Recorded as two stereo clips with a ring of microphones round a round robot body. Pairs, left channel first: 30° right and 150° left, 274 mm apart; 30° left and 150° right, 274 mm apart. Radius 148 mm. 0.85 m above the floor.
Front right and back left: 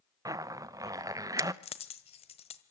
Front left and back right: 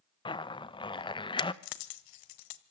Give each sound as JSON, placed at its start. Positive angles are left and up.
{"t": 0.2, "sound": "a zipper", "azimuth_deg": 85, "distance_m": 1.0}
{"t": 1.6, "sound": "a dropped coin", "azimuth_deg": 40, "distance_m": 1.4}